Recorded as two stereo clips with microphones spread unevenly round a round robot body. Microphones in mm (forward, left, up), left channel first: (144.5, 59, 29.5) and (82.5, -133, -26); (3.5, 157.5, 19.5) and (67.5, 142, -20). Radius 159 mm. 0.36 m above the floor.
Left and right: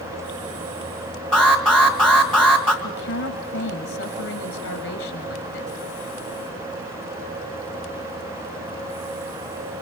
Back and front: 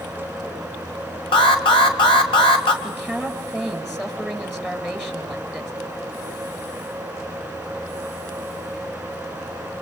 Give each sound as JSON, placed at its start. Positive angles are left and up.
{"t": 1.3, "sound": "an alarm", "azimuth_deg": 175, "distance_m": 1.7}
{"t": 2.8, "sound": "a woman speaking", "azimuth_deg": 80, "distance_m": 5.5}